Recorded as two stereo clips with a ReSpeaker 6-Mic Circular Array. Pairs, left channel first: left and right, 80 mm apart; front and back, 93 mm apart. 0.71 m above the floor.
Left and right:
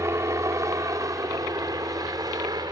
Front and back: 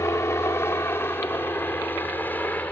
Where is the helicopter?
50° right; by 2.7 s 70° right.